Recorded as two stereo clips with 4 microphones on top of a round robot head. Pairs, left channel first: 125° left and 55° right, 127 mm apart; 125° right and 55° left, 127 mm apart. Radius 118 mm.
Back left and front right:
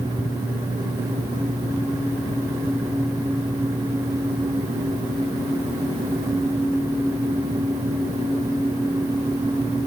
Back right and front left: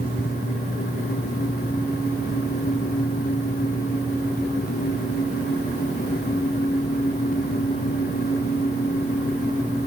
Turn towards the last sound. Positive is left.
No sound to turn to.